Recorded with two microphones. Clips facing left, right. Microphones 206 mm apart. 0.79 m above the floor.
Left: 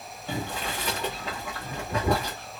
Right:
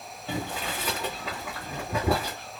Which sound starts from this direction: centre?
Boiling, at 0.3 s.